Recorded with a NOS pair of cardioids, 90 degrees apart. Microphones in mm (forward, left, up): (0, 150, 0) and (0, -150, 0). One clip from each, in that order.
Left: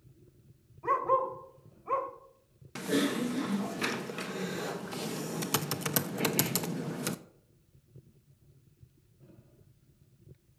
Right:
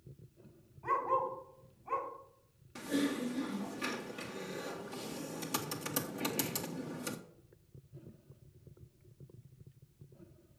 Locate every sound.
0.8 s a dog barking: 30° left, 3 m
2.8 s typing on a keyboard: 50° left, 1.1 m